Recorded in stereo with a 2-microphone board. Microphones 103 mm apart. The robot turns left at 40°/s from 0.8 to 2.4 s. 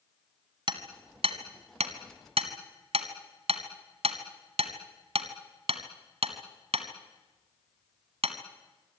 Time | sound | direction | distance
0.7 | hammering | 50° right (ahead or behind) | 1.9 m